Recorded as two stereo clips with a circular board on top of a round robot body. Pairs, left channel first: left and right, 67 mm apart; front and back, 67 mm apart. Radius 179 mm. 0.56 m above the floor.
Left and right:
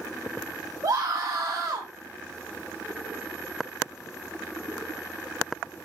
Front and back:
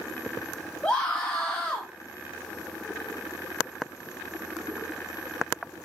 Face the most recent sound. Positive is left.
turn(degrees=-75)